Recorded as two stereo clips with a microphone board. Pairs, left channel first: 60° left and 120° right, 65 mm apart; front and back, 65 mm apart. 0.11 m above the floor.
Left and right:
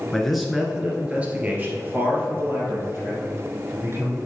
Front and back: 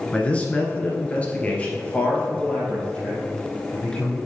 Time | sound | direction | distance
0.1 | a man speaking | 10° right | 1.2 m